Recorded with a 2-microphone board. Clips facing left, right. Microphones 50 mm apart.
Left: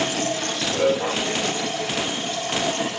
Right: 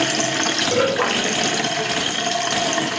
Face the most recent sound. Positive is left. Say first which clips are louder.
# right 4 dB
turn(degrees=-75)  # may be behind; listen again after turning